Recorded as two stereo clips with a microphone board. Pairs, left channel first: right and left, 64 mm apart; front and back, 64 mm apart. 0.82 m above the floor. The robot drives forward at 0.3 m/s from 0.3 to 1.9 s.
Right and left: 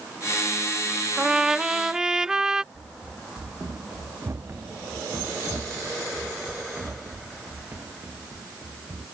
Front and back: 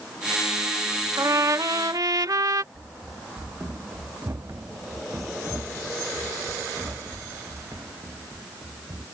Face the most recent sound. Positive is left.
turn(degrees=150)